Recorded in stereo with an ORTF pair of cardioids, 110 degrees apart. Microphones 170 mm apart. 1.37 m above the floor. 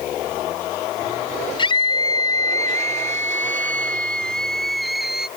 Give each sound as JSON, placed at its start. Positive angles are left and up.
{"t": 1.6, "sound": "a scream", "azimuth_deg": 25}